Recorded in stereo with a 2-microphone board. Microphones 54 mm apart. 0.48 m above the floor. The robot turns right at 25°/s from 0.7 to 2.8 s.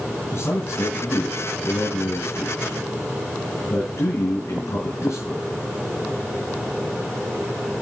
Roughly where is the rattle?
No rattle in this recording.